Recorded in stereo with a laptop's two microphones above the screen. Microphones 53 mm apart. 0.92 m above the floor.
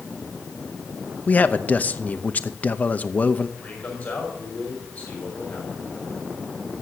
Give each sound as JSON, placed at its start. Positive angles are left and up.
{"t": 1.3, "sound": "a man speaking", "side_deg": 30, "distance_m": 0.8}
{"t": 3.6, "sound": "a man speaking", "side_deg": 25, "distance_m": 5.0}